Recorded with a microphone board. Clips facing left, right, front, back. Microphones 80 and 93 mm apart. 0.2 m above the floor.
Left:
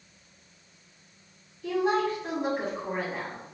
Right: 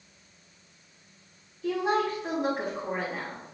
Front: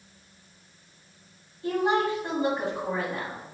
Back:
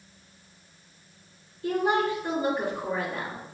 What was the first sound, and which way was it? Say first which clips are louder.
A woman speaking: left 1 dB, even; straight ahead.